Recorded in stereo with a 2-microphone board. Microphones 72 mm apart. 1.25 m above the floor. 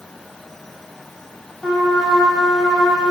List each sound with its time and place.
1.6 s a trumpet: centre (ahead or behind), 3 m